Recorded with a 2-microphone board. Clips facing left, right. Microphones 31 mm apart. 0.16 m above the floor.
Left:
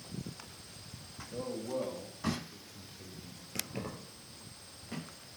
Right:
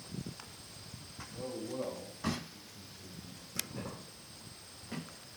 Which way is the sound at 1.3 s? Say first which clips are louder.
Left 3 dB; 75° left (ahead or behind).